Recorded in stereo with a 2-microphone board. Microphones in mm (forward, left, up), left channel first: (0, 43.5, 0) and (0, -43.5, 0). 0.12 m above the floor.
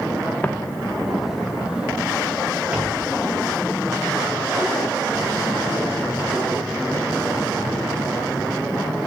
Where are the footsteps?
20° left (ahead or behind), 0.8 m; by 7.7 s 20° right (ahead or behind), 9.5 m.